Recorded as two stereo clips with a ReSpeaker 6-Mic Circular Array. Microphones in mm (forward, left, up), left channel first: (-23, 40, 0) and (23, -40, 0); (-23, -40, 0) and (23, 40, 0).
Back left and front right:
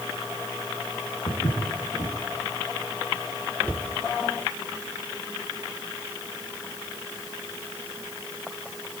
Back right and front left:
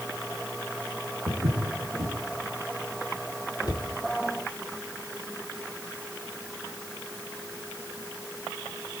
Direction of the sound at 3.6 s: 165° right.